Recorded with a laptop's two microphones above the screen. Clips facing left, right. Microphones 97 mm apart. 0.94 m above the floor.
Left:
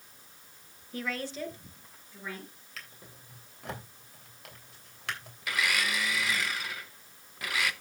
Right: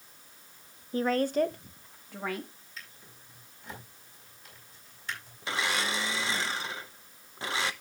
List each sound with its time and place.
0.9 s a woman speaking: 30° right (ahead or behind), 0.6 m; by 2.5 s 75° right (ahead or behind), 1.5 m
2.8 s a drawer: 75° left (ahead or behind), 3 m
5.4 s a blender: 30° right (ahead or behind), 0.5 m